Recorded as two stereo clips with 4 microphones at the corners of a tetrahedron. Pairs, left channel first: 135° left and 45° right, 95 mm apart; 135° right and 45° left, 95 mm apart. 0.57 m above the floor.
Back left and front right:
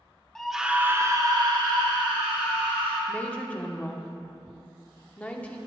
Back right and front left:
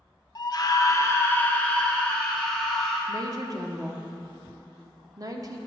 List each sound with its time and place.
0.3 s a scream: 145° right, 1.0 m; by 3.0 s 50° right, 2.5 m
3.1 s a woman speaking: 65° left, 0.9 m